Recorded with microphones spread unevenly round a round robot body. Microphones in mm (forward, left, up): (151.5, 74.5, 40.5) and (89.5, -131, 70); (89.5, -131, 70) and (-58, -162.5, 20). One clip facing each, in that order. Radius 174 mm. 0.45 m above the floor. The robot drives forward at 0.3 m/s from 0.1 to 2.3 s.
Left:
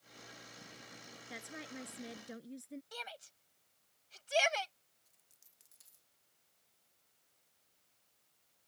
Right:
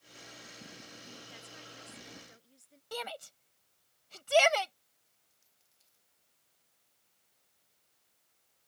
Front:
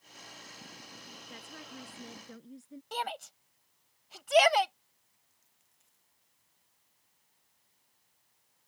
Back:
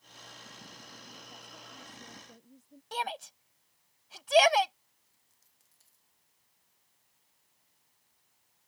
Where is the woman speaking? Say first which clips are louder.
Left 5 dB, front 4 dB; 60° left.